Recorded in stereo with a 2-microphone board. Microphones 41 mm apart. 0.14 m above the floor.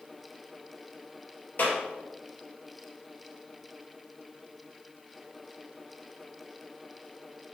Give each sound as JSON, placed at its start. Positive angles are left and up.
{"t": 1.6, "sound": "a clap", "side_deg": 55, "distance_m": 3.0}